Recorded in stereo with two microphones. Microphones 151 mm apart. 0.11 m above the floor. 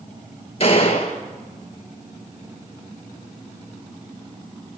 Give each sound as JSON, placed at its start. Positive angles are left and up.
{"t": 0.6, "sound": "a gunshot", "side_deg": 40, "distance_m": 2.5}